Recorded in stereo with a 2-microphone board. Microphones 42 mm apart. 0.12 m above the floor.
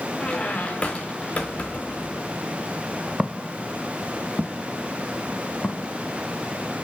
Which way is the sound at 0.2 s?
30° left (ahead or behind).